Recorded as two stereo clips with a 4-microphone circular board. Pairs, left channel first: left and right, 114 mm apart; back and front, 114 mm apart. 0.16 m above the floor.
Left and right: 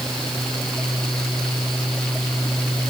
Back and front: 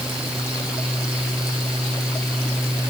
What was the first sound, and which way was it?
Only background noise.